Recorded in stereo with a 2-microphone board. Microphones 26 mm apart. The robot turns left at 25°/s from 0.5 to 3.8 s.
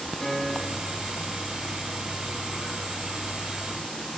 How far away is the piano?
About 1.5 m.